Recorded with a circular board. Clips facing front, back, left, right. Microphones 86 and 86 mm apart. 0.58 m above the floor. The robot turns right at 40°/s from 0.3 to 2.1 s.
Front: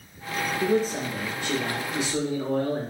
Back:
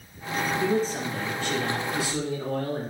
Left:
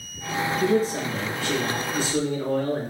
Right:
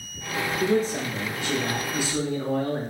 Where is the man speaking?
85° right, 1.2 m; by 2.9 s 25° right, 1.2 m.